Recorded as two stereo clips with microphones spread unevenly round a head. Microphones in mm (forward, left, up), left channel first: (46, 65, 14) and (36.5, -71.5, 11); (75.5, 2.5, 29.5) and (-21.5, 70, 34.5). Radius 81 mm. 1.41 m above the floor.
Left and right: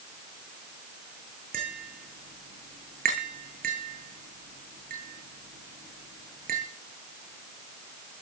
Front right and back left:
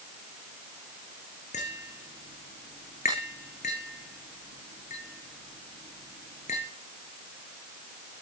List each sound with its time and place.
1.5 s tapping: 80° right, 9.5 m